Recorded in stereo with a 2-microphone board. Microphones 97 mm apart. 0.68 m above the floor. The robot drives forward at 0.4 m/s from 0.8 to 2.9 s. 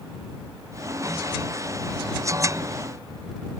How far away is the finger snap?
No finger snap in this recording.